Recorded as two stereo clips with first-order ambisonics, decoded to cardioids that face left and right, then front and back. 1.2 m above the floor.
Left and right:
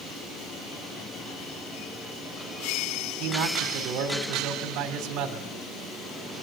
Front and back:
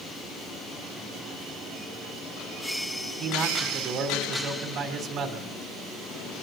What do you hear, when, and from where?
3.2 s a man speaking: 125° right, 3 m